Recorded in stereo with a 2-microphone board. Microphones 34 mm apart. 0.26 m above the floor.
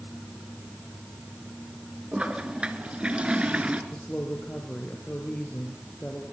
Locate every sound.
2.1 s a toilet flushing: 30° right (ahead or behind), 3 m
3.9 s a woman speaking: 45° left (ahead or behind), 4 m